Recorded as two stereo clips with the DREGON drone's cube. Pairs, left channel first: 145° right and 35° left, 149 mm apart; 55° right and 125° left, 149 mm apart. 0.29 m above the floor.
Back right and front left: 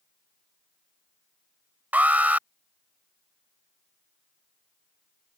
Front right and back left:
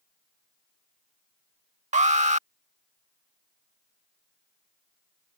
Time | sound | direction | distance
1.9 | an alarm | 110° left | ?